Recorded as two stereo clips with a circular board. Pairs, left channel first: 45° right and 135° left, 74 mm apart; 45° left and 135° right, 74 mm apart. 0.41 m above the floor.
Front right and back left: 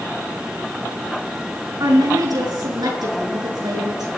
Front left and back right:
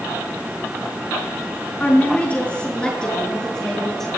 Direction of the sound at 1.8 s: 115° left.